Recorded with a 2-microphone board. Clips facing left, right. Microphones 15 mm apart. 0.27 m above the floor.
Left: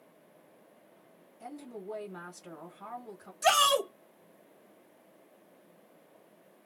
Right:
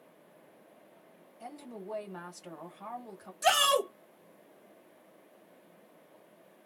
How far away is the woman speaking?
About 1.7 m.